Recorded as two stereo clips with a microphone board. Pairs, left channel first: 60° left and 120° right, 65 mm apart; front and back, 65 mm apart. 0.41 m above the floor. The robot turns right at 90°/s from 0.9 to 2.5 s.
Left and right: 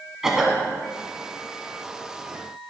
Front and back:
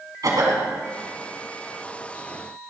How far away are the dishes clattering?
No dishes clattering in this recording.